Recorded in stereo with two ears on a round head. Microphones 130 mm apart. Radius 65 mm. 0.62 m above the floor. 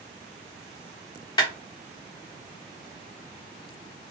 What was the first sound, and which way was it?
A clap, 30° left (ahead or behind).